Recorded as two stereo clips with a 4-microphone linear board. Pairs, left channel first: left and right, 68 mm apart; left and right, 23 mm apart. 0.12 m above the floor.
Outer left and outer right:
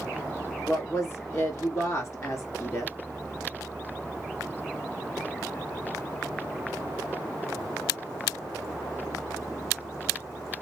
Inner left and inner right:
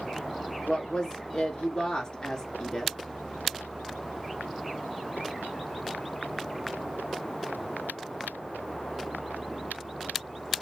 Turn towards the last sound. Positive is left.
turn(degrees=45)  # may be behind; listen again after turning